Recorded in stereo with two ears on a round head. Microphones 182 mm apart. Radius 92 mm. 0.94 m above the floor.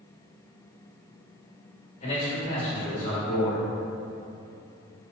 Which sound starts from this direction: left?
A man speaking, at 2.0 s.